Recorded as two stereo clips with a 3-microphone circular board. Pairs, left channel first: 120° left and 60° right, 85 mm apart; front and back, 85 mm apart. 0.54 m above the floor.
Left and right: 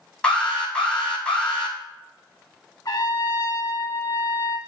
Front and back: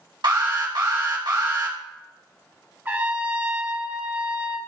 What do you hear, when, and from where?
0.2 s an alarm: 160° right, 4.5 m
2.9 s a trumpet: 125° left, 1.4 m